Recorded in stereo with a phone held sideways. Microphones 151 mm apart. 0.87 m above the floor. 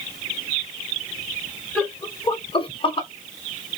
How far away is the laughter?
About 0.8 m.